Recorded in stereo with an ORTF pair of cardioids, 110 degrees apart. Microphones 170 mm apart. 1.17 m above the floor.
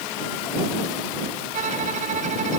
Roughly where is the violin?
Ahead right.